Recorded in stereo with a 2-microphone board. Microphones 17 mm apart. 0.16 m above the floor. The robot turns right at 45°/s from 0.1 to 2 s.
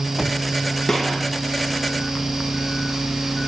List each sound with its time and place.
0.9 s a gunshot: 20° left (ahead or behind), 6 m; by 1.3 s 5° left (ahead or behind), 6 m